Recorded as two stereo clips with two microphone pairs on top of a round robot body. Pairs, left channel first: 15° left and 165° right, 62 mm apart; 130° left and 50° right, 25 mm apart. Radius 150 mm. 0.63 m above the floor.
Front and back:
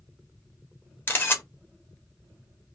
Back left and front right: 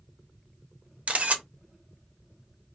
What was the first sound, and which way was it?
A camera shutter, 45° right.